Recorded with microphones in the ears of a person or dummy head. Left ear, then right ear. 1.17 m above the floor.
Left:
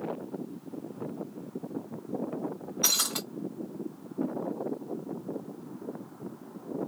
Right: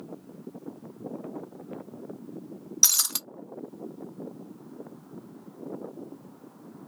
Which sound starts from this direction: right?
Breaking glass, at 2.8 s.